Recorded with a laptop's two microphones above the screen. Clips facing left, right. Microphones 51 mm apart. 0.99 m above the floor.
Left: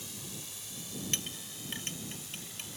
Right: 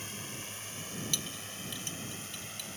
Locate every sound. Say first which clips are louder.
0.0 s a drone: right 4 dB; 45° right (ahead or behind)
1.1 s a clink: even; 40° left (ahead or behind)